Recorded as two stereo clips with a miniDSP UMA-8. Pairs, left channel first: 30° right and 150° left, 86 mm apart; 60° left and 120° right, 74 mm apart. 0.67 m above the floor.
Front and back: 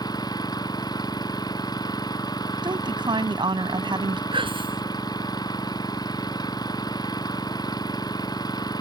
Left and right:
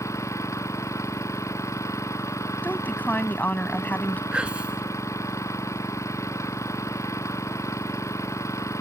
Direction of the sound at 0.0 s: 10° left.